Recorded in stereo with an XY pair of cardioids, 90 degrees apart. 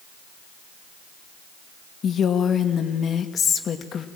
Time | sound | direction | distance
2.0 | a woman speaking | 60° left | 2 m